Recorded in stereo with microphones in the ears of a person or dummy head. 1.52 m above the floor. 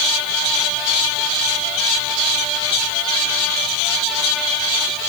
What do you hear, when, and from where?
Only background noise.